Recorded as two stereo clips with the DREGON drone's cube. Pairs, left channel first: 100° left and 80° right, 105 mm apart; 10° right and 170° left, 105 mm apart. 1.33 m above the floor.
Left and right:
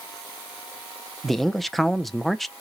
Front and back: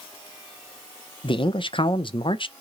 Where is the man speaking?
10° left, 0.5 m.